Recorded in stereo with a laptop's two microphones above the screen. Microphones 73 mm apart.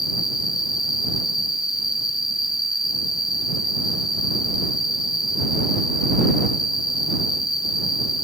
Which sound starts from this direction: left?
An insect, at 0.0 s.